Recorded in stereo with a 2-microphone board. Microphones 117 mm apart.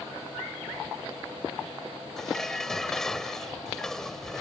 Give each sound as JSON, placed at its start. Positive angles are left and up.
{"t": 2.2, "sound": "dishes clattering", "side_deg": 5}